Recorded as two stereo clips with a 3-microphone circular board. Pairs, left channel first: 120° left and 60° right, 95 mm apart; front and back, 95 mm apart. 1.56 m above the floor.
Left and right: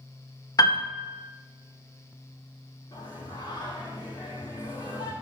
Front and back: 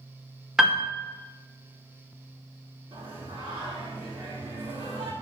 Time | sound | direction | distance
0.6 | a piano | 95° left | 0.7 m
2.9 | singing | 160° left | 2 m